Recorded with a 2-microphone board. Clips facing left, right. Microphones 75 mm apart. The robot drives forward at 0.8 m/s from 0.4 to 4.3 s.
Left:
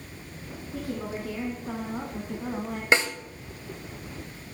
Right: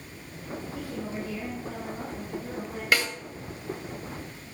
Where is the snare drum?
25° left (ahead or behind), 1.6 m.